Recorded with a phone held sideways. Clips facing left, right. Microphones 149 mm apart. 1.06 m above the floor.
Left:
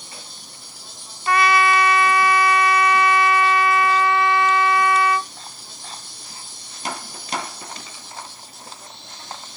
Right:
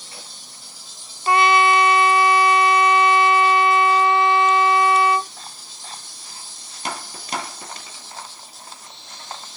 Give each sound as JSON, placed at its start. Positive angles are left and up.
{"t": 0.0, "sound": "an insect", "side_deg": 60}
{"t": 1.3, "sound": "a trumpet", "side_deg": -25}